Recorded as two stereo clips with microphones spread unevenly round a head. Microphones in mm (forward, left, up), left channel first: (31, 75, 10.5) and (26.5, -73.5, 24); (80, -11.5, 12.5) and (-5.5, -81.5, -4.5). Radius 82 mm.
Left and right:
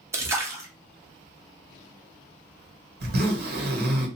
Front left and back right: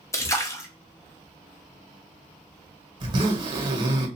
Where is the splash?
20° right, 0.9 m.